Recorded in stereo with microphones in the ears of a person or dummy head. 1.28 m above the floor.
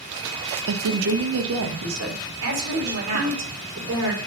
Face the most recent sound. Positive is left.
turn(degrees=-85)